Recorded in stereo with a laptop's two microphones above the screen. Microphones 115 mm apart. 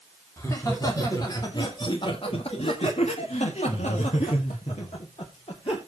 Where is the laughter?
25° left (ahead or behind), 3 m; by 5.8 s 55° left (ahead or behind), 3 m.